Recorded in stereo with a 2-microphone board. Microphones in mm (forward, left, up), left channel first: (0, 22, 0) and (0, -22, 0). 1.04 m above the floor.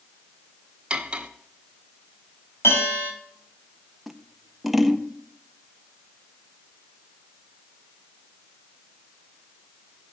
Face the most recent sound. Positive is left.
turn(degrees=-5)  # may be behind; listen again after turning